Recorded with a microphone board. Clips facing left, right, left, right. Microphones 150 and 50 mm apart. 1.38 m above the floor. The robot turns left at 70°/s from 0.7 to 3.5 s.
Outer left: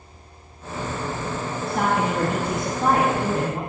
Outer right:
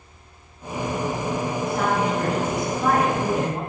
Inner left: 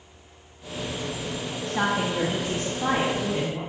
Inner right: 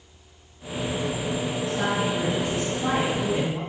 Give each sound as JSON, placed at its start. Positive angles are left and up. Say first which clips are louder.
{"t": 1.7, "sound": "a woman speaking", "louder": "outer left 2 dB, inner left 2 dB", "azimuth_deg": 115, "distance_m": 2.0}